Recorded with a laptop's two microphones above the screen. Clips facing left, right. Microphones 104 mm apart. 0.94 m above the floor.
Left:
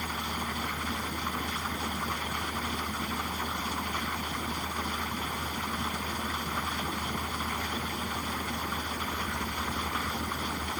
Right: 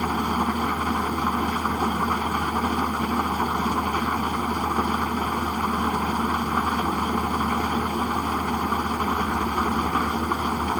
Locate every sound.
0.0 s an engine running: 55° right (ahead or behind)